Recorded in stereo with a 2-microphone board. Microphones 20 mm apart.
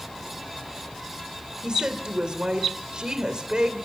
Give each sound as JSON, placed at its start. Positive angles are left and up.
{"t": 1.6, "sound": "a woman speaking", "side_deg": -40, "distance_m": 3.0}